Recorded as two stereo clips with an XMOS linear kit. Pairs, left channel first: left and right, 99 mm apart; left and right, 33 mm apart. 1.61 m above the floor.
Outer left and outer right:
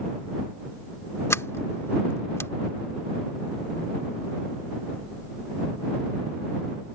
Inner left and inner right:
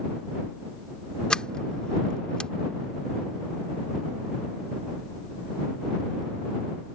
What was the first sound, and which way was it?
A sliding door, 25° left (ahead or behind).